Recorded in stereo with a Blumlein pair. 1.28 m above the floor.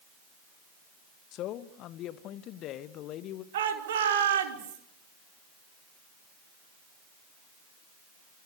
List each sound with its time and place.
1.3 s a man speaking: 35° left, 1.2 m
3.5 s a shout: 60° right, 4 m